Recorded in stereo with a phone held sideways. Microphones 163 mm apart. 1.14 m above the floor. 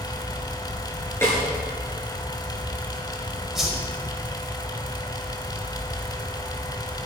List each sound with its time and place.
0.0 s a fan: 25° left (ahead or behind), 2 m
1.2 s a snare drum: 15° left (ahead or behind), 8.5 m
3.5 s a whoosh: centre (ahead or behind), 4.5 m